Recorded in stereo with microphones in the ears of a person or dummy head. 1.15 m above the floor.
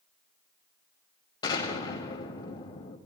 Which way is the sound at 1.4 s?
25° left (ahead or behind).